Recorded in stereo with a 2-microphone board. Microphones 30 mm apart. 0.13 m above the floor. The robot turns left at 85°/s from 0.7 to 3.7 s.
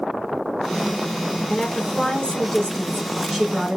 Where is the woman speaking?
145° left, 1.3 m; by 3.8 s 40° right, 1.3 m.